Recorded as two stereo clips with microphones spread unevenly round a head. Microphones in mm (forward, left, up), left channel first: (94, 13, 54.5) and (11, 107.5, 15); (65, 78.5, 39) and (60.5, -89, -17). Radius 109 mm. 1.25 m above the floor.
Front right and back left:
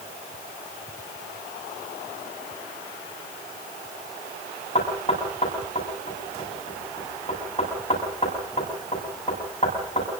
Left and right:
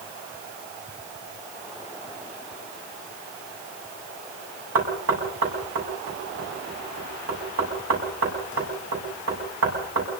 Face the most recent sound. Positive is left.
turn(degrees=-115)